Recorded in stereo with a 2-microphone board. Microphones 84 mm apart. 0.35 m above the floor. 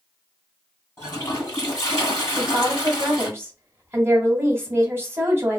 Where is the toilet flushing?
35° left (ahead or behind), 1.9 m.